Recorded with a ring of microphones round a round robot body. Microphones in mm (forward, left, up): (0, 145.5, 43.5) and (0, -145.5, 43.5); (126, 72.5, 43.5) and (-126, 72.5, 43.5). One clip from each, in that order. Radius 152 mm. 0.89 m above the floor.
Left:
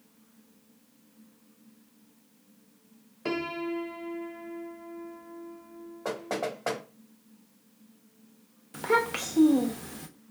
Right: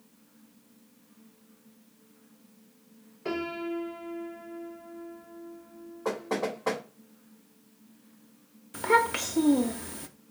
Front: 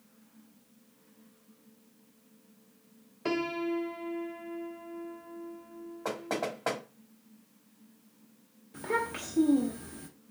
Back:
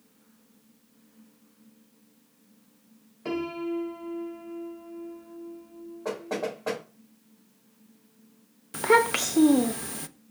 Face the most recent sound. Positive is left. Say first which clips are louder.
# right 2 dB, back 11 dB
turn(degrees=180)